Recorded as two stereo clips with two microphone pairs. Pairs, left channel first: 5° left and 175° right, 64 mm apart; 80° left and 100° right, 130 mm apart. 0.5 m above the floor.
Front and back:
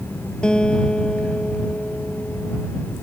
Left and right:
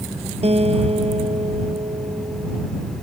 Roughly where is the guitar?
Ahead right.